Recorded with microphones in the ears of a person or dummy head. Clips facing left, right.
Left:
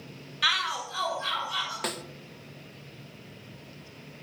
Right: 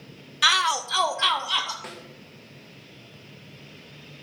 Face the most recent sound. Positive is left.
turn(degrees=60)  # may be behind; listen again after turning